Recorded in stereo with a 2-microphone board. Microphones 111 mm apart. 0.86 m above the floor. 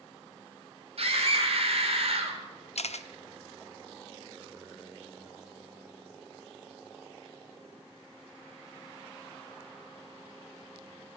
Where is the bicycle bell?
I don't hear a bicycle bell.